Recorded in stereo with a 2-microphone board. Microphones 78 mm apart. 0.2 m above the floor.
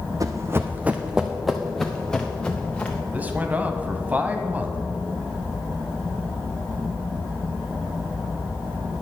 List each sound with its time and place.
0.2 s running footsteps: 45° right (ahead or behind), 0.7 m; by 3.0 s 20° left (ahead or behind), 1.9 m
3.1 s a man speaking: 20° right (ahead or behind), 1.0 m